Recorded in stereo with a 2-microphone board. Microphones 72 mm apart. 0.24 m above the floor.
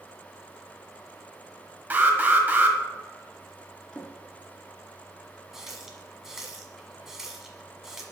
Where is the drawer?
10° left (ahead or behind), 1.7 m.